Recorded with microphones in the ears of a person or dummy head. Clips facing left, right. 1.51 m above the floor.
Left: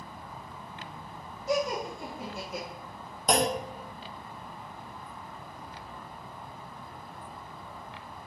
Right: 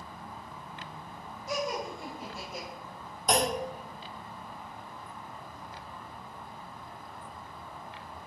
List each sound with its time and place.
1.5 s laughter: 75° left (ahead or behind), 3 m; by 2.7 s 70° left (ahead or behind), 1.5 m
3.3 s a clunk: 55° left (ahead or behind), 1.5 m